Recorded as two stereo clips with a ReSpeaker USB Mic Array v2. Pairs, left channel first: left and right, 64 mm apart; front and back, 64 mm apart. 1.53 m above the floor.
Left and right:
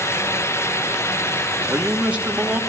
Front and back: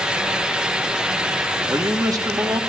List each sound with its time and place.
1.7 s a man speaking: 160° right, 2.0 m